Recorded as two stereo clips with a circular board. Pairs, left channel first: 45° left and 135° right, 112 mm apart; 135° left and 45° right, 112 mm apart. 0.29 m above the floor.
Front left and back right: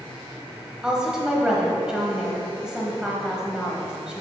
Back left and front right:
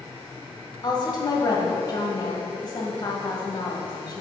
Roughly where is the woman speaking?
Behind left.